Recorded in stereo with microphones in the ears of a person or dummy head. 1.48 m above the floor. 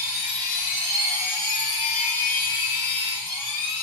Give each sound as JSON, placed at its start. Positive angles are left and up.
{"t": 0.0, "sound": "a machine running", "side_deg": 55, "distance_m": 2.5}